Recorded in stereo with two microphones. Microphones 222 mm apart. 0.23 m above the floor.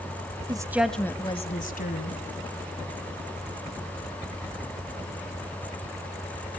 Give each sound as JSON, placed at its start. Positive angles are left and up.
{"t": 0.5, "sound": "a woman speaking", "side_deg": -20, "distance_m": 1.3}